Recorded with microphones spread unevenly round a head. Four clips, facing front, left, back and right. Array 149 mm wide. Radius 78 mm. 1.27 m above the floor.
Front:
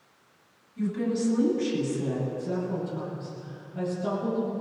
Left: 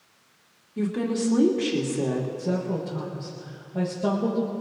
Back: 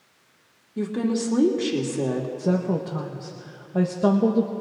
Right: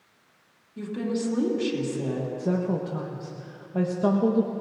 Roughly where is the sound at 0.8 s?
Behind.